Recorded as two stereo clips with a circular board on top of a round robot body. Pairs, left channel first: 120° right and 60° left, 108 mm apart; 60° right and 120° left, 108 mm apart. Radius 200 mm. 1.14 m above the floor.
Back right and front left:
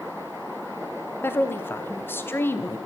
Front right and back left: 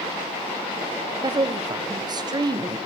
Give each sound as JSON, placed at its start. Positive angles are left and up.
{"t": 1.2, "sound": "a woman speaking", "azimuth_deg": 170, "distance_m": 1.6}